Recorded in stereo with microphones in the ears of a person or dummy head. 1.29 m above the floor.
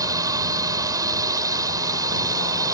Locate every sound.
0.0 s a drone: 15° right (ahead or behind)